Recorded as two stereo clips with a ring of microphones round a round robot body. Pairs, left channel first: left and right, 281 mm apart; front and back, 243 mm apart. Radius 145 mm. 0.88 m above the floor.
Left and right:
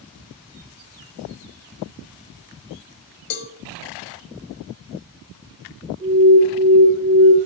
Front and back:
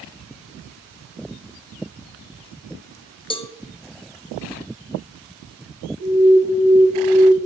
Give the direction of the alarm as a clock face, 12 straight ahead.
10 o'clock.